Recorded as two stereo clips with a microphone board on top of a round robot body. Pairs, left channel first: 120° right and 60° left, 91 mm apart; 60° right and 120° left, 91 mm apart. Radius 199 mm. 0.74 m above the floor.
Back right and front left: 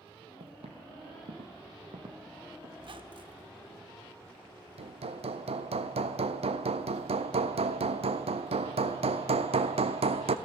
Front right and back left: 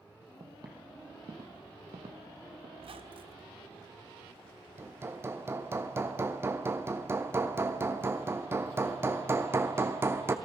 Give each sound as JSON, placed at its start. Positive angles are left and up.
{"t": 0.4, "sound": "footsteps", "azimuth_deg": 65, "distance_m": 1.7}
{"t": 2.8, "sound": "a squeak", "azimuth_deg": 95, "distance_m": 1.5}
{"t": 4.8, "sound": "hammering", "azimuth_deg": 55, "distance_m": 0.8}